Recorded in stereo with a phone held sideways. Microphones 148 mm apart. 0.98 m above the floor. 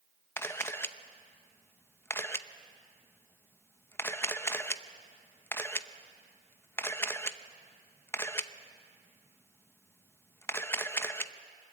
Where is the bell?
No bell in this recording.